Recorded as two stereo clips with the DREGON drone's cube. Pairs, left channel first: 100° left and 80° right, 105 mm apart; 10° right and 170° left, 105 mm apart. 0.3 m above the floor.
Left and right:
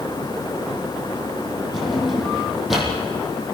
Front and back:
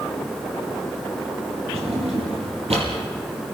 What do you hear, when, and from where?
1.7 s a drawer: 170° right, 5.5 m